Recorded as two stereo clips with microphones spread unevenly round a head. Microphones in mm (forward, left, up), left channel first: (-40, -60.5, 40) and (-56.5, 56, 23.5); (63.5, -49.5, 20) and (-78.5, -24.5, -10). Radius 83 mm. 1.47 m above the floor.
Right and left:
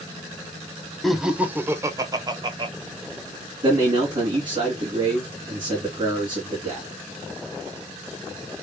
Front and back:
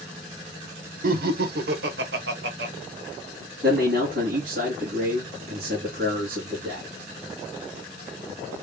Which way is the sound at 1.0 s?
170° right.